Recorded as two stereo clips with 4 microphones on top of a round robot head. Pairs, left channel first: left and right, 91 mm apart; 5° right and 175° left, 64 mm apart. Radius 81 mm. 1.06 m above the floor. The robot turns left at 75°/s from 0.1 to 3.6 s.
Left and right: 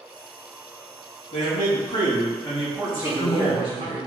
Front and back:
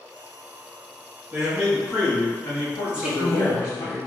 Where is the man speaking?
110° left, 1.5 m; by 3.9 s 60° right, 1.5 m.